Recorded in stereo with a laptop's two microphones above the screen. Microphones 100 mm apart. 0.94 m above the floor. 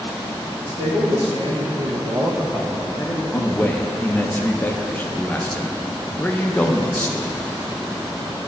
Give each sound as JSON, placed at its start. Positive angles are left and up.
{"t": 0.6, "sound": "a man speaking", "side_deg": -70, "distance_m": 1.7}
{"t": 3.3, "sound": "a man speaking", "side_deg": 20, "distance_m": 0.6}